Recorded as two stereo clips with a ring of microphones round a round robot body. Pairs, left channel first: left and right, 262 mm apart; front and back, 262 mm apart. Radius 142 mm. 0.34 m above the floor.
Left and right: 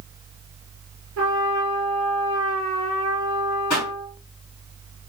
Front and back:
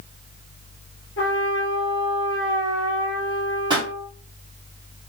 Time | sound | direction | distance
1.2 | a trumpet | 55° right | 1.9 m
3.7 | a pop | 105° left | 2.5 m